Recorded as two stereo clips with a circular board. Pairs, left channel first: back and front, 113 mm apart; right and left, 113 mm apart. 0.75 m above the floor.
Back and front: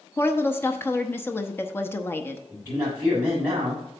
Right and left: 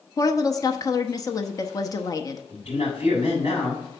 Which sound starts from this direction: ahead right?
A man speaking, at 2.5 s.